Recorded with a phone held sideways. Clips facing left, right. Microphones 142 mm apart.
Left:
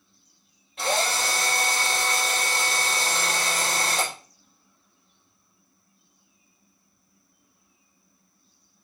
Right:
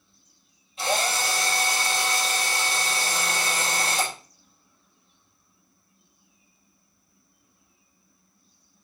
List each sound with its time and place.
0.8 s a drill: 65° left (ahead or behind), 5 m